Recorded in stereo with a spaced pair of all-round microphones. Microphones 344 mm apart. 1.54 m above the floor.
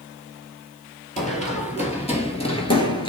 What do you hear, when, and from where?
1.2 s running footsteps: 20° left (ahead or behind), 2 m; by 3.1 s 15° left (ahead or behind), 1.5 m